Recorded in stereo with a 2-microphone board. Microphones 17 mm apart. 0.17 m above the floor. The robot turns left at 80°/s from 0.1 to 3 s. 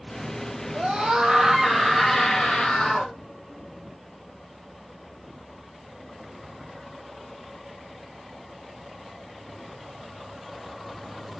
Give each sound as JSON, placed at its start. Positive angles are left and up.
{"t": 0.7, "sound": "a scream", "azimuth_deg": -90, "distance_m": 4.5}